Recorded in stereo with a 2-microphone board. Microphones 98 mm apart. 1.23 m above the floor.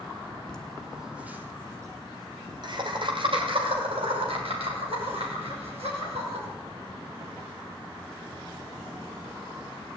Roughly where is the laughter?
Centre.